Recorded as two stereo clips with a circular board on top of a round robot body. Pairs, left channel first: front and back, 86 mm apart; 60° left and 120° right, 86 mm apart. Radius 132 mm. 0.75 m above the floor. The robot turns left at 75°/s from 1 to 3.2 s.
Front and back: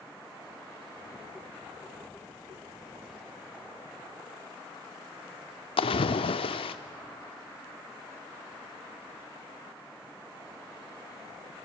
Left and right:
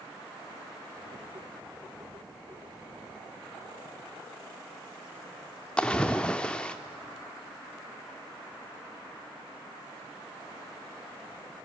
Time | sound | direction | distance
5.8 | a splash | 20° right | 0.5 m